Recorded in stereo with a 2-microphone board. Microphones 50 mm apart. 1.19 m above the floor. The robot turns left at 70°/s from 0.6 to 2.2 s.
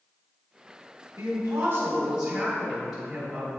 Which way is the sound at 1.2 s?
95° right.